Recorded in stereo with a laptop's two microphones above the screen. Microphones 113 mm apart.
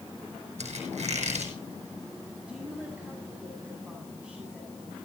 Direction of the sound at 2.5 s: 10° right (ahead or behind).